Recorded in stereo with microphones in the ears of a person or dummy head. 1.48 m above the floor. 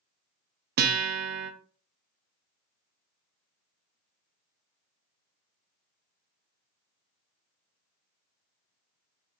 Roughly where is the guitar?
Right.